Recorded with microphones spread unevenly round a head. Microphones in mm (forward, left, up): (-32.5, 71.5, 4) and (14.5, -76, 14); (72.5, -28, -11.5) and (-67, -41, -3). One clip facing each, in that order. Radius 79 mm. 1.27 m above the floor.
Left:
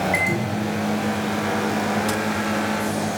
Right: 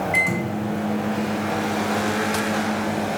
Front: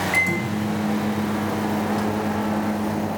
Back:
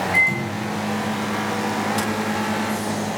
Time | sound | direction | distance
0.1 | a microwave | 35° left | 1.8 m